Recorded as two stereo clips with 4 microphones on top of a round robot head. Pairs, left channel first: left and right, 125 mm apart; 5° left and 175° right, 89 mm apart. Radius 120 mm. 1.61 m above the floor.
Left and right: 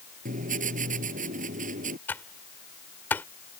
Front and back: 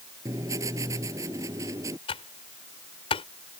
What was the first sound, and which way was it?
Writing, 115° right.